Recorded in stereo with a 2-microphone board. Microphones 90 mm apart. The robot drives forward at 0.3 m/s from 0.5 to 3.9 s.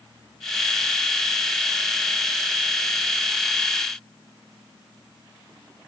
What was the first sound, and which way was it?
Only background noise.